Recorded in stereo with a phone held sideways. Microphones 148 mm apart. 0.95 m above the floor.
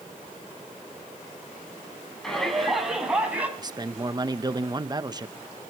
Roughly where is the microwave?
No microwave in this recording.